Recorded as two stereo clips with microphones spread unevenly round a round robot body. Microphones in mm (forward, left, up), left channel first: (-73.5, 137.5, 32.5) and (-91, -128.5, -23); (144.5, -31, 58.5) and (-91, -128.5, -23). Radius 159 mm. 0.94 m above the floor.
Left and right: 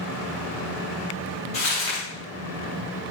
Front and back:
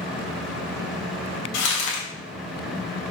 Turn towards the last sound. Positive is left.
turn(degrees=15)